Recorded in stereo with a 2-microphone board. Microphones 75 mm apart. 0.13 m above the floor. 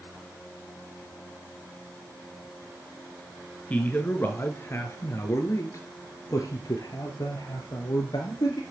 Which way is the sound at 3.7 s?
20° left (ahead or behind).